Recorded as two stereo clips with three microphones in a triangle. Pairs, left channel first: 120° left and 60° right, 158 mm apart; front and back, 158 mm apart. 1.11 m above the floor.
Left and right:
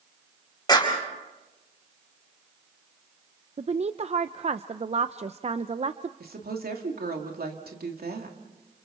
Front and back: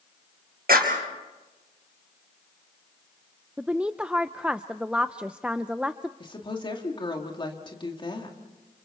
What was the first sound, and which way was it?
A clap, 175° right.